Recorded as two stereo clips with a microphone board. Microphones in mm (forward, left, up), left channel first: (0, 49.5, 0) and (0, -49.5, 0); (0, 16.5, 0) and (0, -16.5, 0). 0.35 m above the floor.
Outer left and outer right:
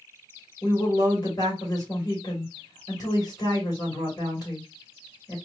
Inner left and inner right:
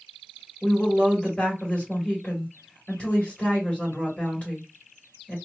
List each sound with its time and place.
0.6 s a woman speaking: 40° left (ahead or behind), 1.9 m